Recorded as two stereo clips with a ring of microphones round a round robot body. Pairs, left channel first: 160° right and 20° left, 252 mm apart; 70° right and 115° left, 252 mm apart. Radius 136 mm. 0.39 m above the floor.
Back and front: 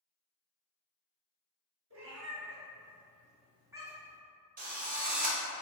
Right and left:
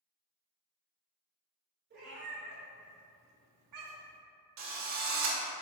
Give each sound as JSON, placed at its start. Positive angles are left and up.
{"t": 1.9, "sound": "a cat meowing", "azimuth_deg": 60, "distance_m": 1.6}
{"t": 4.6, "sound": "a drill", "azimuth_deg": 80, "distance_m": 0.9}